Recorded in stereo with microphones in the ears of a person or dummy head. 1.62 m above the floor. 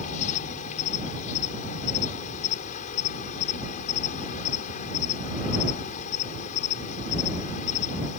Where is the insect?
40° left (ahead or behind).